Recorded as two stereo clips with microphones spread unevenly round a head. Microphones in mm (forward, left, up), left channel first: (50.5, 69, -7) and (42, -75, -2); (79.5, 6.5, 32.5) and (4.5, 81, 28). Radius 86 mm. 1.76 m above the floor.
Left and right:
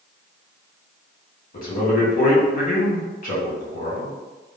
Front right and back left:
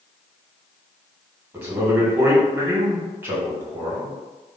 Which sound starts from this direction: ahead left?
A man speaking, at 1.5 s.